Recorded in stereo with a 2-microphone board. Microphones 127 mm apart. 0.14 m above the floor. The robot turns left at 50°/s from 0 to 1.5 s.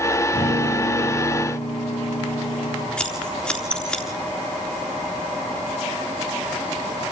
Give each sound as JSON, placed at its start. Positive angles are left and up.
{"t": 0.3, "sound": "a guitar", "azimuth_deg": 95, "distance_m": 8.5}
{"t": 3.0, "sound": "scissors", "side_deg": 10, "distance_m": 3.5}